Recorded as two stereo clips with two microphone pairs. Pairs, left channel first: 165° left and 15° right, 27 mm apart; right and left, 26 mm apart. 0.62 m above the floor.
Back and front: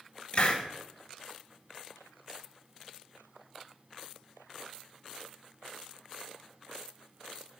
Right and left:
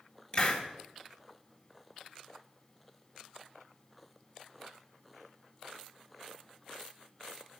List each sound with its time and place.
0.3 s a hiss: 140° right, 1.7 m